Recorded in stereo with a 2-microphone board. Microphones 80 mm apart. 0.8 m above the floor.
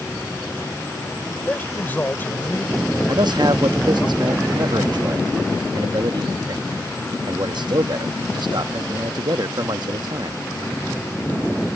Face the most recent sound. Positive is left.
turn(degrees=-65)  # may be behind; listen again after turning